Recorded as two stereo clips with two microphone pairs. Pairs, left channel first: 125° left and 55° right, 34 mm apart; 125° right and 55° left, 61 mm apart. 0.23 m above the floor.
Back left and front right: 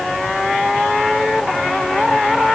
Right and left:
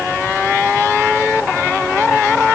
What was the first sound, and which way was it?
Only background noise.